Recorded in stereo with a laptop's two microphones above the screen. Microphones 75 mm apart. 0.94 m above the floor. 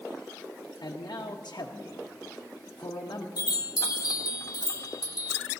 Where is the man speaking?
70° left (ahead or behind), 0.8 m.